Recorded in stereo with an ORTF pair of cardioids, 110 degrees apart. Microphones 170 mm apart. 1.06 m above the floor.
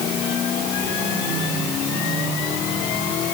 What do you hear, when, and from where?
Only background noise.